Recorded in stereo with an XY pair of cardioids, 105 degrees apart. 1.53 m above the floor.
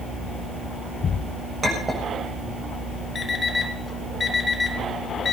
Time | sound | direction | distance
1.6 | a clink | 25° right | 6 m
3.1 | an alarm clock | 35° left | 2.5 m